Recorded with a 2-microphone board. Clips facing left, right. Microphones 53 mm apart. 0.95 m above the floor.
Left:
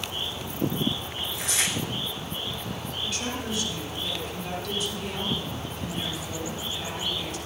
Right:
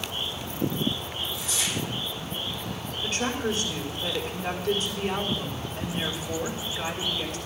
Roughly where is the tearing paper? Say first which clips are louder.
Left 3 dB; left.